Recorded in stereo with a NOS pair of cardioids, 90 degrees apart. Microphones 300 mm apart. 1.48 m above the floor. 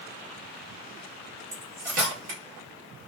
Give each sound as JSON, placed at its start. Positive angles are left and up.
{"t": 1.5, "sound": "cutlery clinking", "azimuth_deg": -60, "distance_m": 1.7}